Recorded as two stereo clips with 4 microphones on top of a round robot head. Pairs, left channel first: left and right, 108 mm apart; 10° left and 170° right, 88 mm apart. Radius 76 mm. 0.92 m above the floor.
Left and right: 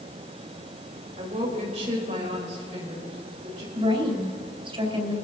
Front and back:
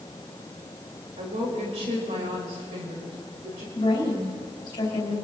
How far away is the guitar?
I don't hear a guitar.